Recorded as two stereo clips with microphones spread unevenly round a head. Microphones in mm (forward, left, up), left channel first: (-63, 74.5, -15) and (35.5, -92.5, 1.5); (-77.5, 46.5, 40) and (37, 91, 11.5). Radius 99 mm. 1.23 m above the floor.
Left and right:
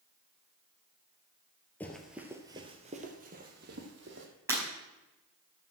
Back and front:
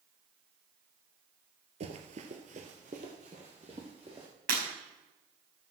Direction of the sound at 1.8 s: 35° left.